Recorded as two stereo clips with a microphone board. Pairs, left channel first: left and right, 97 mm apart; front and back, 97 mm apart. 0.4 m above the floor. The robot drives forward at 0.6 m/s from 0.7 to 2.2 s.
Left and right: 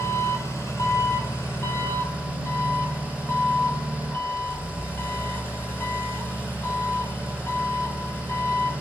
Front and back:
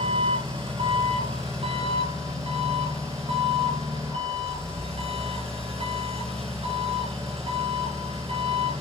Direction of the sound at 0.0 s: 150° left.